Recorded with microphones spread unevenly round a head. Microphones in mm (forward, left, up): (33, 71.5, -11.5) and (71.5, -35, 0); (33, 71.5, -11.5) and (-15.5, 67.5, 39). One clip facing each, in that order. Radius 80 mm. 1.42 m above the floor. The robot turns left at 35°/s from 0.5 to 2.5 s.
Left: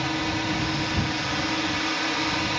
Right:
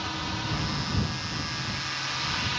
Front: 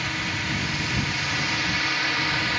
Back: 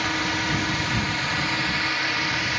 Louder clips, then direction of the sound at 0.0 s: Left 7 dB, back 4 dB; 155° left.